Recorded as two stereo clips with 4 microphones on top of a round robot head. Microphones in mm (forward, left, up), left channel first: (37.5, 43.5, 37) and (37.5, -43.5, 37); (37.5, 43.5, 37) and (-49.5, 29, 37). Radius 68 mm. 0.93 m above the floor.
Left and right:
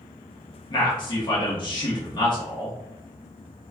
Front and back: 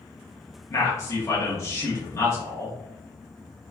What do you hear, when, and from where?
0.7 s a man speaking: 60° left, 1.1 m